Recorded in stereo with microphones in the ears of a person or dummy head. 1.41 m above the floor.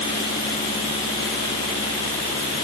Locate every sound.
Only background noise.